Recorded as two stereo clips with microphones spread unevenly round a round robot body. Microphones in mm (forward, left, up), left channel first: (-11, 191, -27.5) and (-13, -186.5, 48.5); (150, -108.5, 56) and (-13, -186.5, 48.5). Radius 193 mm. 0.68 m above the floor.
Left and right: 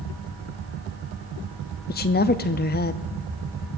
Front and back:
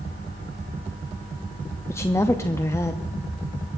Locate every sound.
1.9 s a woman speaking: 95° left, 0.5 m